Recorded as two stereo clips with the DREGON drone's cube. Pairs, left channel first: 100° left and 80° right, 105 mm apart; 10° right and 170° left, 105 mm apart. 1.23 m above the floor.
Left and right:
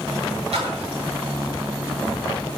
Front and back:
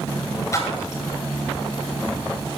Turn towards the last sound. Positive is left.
turn(degrees=-70)